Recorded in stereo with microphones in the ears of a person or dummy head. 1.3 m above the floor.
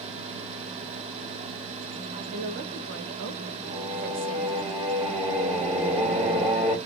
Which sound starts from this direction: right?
A woman speaking, at 2.1 s.